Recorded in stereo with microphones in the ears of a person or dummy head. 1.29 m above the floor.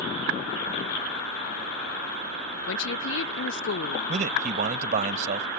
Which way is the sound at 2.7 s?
60° left (ahead or behind).